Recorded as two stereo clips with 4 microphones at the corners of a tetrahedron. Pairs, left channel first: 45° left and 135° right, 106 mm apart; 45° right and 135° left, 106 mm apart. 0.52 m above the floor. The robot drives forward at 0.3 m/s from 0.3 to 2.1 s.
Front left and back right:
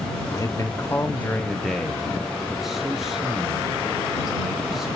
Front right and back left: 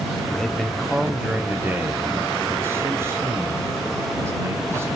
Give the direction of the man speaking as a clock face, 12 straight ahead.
11 o'clock.